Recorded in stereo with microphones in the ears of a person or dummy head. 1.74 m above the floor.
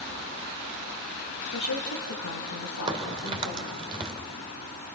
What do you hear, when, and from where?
1.5 s a woman speaking: 65° left (ahead or behind), 3.5 m; by 3.8 s 70° left (ahead or behind), 3.5 m
2.9 s a crack: 25° right (ahead or behind), 2.5 m